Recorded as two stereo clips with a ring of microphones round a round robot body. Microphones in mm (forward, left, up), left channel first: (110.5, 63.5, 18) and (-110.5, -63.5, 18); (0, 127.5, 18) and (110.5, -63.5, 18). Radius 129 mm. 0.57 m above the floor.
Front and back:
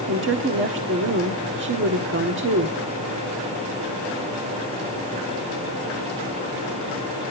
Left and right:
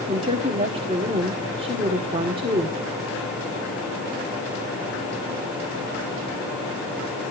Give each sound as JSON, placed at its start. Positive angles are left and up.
{"t": 0.1, "sound": "a woman speaking", "azimuth_deg": -125, "distance_m": 1.2}